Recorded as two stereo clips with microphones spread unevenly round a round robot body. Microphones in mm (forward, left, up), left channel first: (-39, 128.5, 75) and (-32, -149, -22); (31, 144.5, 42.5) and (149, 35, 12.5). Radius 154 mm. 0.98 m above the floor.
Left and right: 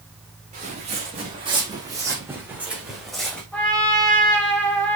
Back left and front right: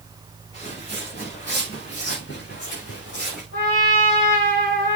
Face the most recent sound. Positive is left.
turn(degrees=175)